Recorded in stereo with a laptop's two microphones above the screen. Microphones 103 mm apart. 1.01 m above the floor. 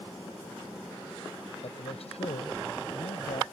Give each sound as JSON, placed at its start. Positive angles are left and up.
{"t": 1.6, "sound": "a man speaking", "side_deg": 80}